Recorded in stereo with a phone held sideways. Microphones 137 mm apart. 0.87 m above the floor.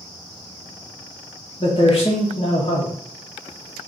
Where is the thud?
No thud in this recording.